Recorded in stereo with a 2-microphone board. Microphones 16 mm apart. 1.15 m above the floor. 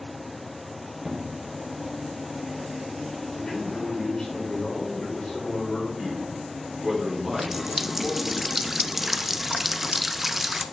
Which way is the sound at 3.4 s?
85° left.